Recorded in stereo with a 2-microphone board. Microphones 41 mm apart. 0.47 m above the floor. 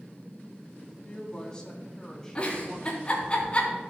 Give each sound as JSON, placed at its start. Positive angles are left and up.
{"t": 1.0, "sound": "a woman speaking", "side_deg": 25, "distance_m": 3.0}
{"t": 2.4, "sound": "a giggle", "side_deg": 30, "distance_m": 3.0}